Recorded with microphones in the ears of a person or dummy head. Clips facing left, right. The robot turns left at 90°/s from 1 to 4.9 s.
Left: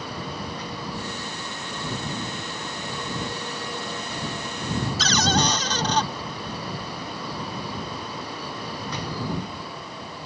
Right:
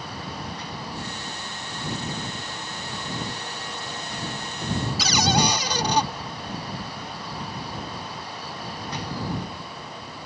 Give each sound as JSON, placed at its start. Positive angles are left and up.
{"t": 5.0, "sound": "a cupboard door", "side_deg": -10}